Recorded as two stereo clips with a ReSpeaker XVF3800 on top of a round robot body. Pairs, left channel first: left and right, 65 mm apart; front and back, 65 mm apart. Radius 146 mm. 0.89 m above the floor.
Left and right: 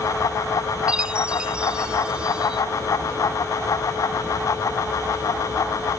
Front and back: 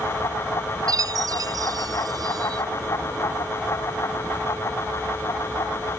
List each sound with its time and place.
0.9 s a chime: 165° right